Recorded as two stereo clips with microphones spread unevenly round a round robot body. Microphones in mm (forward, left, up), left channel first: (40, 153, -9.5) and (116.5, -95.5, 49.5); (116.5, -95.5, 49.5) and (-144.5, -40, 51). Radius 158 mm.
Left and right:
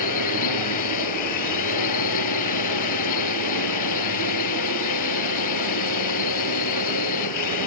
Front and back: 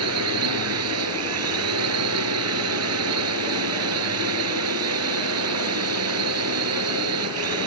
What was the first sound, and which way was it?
A drone, 125° left.